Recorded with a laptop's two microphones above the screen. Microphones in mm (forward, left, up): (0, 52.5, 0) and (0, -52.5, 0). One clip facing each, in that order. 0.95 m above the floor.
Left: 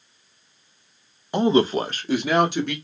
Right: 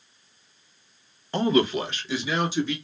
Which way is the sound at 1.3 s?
15° left (ahead or behind).